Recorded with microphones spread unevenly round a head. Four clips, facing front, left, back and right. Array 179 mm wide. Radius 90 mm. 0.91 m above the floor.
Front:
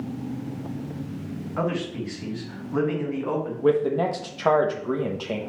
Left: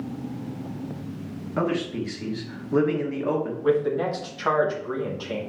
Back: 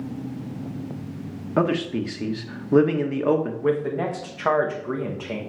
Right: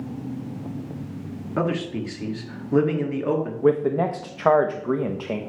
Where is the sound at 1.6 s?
175° right, 1.3 m.